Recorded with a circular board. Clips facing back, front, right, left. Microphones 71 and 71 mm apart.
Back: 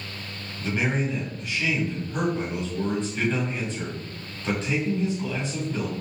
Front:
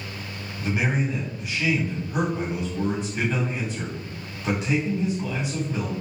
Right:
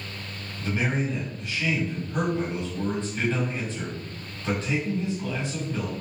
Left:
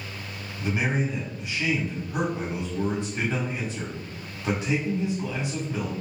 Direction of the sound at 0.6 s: 50° left.